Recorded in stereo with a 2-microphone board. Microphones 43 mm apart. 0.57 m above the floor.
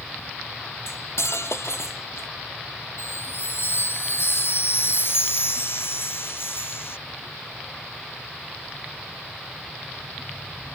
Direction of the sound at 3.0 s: 60° left (ahead or behind).